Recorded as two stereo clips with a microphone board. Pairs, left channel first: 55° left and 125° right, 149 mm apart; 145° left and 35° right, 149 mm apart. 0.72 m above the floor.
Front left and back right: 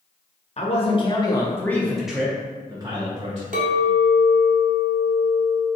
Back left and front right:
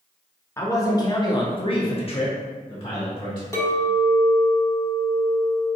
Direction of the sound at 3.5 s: 150° right.